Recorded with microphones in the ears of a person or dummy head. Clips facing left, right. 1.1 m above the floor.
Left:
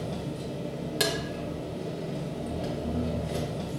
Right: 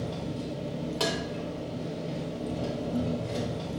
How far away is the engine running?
About 1.1 m.